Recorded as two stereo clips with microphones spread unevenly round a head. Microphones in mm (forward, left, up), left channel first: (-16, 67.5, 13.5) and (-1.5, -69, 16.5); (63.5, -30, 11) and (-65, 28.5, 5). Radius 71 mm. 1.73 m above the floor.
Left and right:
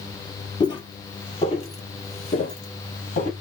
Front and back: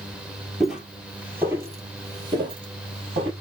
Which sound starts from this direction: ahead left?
Footsteps, at 0.6 s.